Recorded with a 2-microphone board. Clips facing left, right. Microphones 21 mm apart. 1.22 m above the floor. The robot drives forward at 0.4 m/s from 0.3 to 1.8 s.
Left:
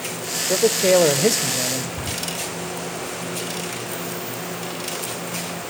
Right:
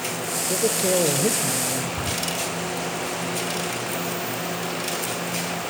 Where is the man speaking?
60° left (ahead or behind), 1.1 m; by 1.9 s 85° left, 1.0 m.